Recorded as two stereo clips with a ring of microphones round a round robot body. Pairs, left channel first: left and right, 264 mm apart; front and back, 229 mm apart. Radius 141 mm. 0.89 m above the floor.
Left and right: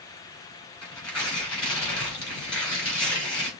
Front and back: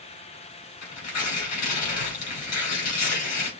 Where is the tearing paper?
5° left, 4 m.